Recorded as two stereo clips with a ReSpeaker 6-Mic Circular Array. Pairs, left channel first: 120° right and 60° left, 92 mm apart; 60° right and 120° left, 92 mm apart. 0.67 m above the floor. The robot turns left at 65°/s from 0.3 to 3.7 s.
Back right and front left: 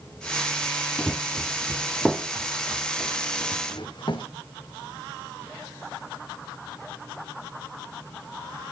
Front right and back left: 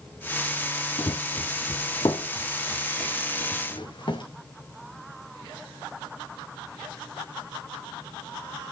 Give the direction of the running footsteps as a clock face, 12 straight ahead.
2 o'clock.